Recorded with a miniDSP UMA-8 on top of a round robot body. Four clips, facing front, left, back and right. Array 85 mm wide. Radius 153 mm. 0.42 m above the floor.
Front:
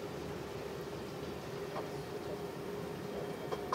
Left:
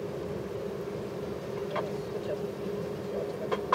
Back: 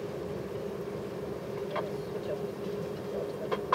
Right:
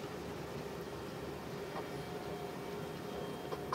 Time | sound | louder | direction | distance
0.0 | an aircraft | left 9 dB, back 6 dB | 130° left | ?